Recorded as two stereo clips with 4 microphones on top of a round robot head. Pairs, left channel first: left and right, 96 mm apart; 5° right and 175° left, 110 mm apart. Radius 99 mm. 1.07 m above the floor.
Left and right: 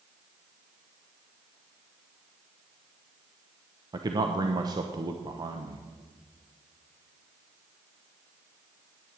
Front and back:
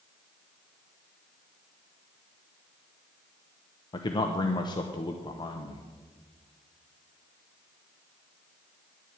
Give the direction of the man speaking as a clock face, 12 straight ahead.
2 o'clock.